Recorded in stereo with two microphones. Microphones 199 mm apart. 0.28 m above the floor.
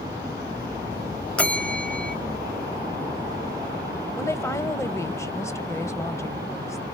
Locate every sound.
1.4 s a bell: 5° left (ahead or behind), 0.9 m
4.2 s a woman speaking: 15° left (ahead or behind), 1.2 m